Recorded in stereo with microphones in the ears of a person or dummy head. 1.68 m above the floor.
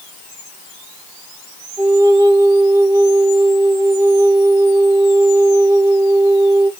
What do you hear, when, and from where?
1.8 s a flute: 20° right (ahead or behind), 0.6 m